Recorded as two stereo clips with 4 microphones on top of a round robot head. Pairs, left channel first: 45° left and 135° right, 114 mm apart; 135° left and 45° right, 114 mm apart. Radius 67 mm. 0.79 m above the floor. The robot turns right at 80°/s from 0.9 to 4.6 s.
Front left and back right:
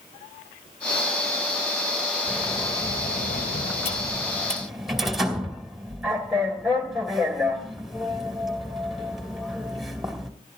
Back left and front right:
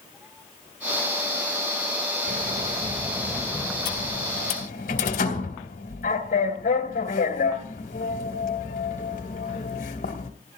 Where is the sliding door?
50° right, 2.5 m; by 10.3 s 140° left, 2.5 m.